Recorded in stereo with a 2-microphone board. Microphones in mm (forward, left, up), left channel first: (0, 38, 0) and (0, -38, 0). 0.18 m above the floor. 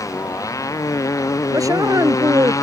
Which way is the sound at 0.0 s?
45° left (ahead or behind).